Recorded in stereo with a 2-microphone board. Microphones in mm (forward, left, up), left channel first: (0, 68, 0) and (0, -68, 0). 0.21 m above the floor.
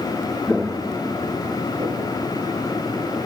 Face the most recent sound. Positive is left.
turn(degrees=-40)  # may be behind; listen again after turning